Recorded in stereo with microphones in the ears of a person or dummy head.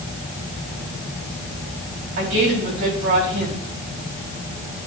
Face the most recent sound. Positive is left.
turn(degrees=-70)  # may be behind; listen again after turning